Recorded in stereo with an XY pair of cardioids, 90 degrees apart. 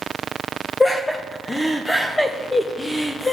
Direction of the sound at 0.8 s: 15° left.